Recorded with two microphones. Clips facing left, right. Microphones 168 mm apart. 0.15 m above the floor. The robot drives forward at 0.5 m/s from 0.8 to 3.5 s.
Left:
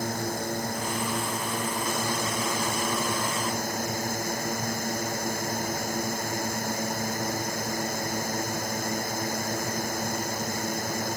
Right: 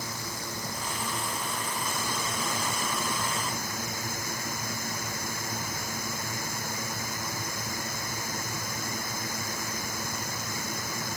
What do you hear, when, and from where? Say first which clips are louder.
0.0 s a drone: left 8 dB; 55° left (ahead or behind); by 11.2 s 50° left (ahead or behind)